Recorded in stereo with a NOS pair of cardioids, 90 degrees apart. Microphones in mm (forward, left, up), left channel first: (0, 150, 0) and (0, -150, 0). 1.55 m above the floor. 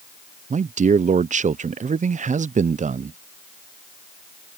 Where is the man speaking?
25° right.